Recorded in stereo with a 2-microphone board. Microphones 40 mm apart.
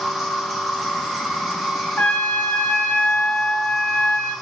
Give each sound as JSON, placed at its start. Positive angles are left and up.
{"t": 0.0, "sound": "an insect", "side_deg": 0, "distance_m": 1.2}
{"t": 2.0, "sound": "a trumpet", "side_deg": 40, "distance_m": 0.9}